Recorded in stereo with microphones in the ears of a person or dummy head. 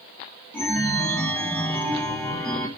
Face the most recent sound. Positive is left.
turn(degrees=5)  # may be behind; listen again after turning